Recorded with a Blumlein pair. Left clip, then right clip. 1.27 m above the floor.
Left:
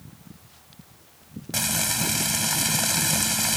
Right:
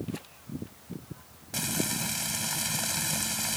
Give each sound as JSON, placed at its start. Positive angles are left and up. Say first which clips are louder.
{"t": 1.5, "sound": "frying", "louder": "left 6 dB", "azimuth_deg": 20}